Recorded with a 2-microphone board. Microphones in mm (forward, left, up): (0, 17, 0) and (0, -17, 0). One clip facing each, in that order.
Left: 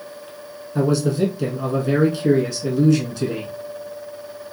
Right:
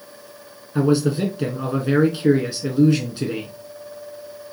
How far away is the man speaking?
About 1.1 m.